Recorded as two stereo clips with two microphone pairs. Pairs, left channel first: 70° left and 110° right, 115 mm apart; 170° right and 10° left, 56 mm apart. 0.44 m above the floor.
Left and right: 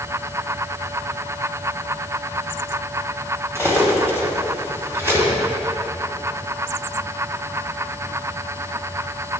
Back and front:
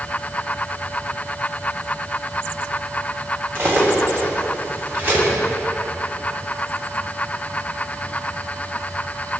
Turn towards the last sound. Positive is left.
turn(degrees=-45)